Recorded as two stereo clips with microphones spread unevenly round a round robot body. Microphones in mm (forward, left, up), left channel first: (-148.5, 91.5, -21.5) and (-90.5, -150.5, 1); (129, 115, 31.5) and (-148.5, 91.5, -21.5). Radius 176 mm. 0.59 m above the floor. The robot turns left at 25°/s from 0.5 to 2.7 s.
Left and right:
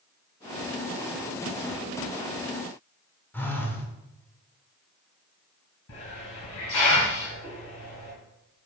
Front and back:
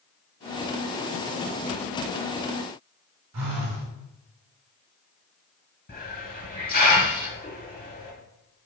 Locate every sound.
3.3 s a phone buzzing: 175° right, 1.5 m
5.9 s a hiss: 65° left, 3 m